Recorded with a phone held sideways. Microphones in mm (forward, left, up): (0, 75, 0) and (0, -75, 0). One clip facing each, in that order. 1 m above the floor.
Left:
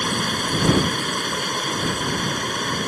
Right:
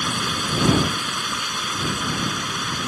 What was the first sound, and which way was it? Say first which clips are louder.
Running water: left 2 dB; 50° left (ahead or behind).